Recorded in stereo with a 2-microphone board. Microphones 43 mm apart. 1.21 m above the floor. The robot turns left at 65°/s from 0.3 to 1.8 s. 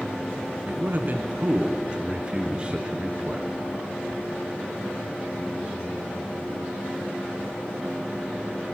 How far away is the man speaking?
About 0.5 m.